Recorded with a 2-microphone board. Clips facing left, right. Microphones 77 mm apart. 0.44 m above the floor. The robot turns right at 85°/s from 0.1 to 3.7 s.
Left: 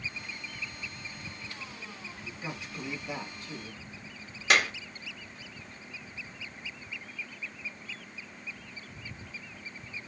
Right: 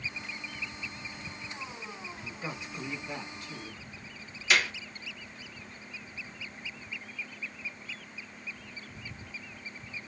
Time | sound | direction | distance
2.2 | a man speaking | 60° right | 1.9 m
4.5 | a clap | 60° left (ahead or behind) | 1.6 m